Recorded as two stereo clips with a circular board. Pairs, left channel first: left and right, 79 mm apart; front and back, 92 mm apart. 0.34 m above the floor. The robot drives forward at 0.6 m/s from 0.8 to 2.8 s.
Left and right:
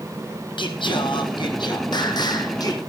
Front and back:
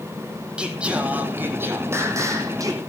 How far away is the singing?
About 2 m.